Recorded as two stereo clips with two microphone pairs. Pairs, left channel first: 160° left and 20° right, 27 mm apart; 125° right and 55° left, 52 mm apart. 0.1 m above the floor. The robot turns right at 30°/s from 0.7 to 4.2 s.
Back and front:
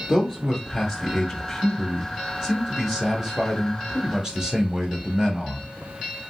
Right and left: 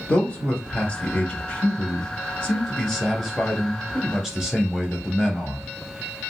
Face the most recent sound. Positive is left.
turn(degrees=-15)